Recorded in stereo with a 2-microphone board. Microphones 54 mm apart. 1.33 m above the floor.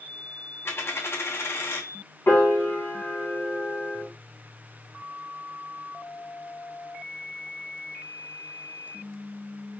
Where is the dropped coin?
50° left (ahead or behind), 1.0 m.